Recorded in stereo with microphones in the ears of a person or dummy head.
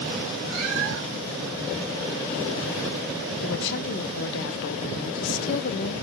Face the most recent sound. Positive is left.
turn(degrees=65)  # may be behind; listen again after turning